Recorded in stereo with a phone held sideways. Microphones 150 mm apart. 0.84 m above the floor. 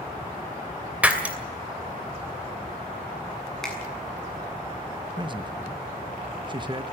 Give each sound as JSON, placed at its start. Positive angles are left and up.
{"t": 1.0, "sound": "breaking glass", "side_deg": -10, "distance_m": 2.5}
{"t": 3.6, "sound": "a finger snap", "side_deg": 5, "distance_m": 7.0}
{"t": 5.2, "sound": "a man speaking", "side_deg": -30, "distance_m": 1.1}